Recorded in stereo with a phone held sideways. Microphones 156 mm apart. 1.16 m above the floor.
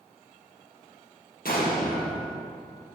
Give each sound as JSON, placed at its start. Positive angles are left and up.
{"t": 1.4, "sound": "an explosion", "side_deg": 75, "distance_m": 1.5}